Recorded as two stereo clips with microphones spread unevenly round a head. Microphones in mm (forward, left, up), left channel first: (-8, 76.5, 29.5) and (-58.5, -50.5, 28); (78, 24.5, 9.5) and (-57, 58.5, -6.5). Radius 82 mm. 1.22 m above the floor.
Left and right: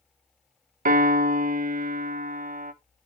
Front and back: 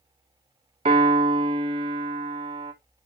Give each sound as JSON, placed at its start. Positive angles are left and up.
{"t": 0.8, "sound": "a piano", "azimuth_deg": -135, "distance_m": 1.1}